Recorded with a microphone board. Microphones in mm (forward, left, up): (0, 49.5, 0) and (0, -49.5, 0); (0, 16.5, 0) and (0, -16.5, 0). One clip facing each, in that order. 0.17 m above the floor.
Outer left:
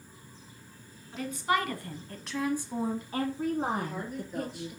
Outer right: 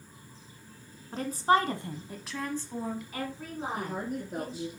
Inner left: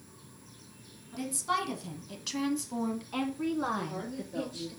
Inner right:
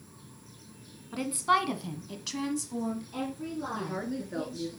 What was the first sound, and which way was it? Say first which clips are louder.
A woman speaking: outer right 4 dB, inner right 5 dB; 45° right (ahead or behind).